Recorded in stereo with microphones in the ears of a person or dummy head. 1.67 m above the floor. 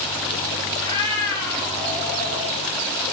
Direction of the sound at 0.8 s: 25° left (ahead or behind).